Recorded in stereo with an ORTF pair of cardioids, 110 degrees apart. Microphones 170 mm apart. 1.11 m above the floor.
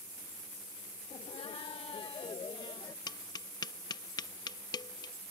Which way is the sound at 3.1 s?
25° left.